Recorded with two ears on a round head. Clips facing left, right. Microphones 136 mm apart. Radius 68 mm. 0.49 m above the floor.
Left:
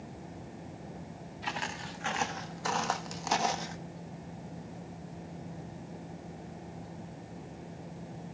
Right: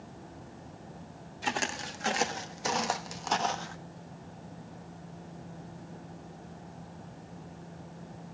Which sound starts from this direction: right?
Footsteps, at 1.4 s.